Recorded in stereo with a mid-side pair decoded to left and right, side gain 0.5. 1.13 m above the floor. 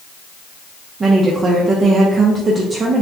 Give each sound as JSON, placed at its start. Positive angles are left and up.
{"t": 1.0, "sound": "a woman speaking", "azimuth_deg": -40, "distance_m": 0.7}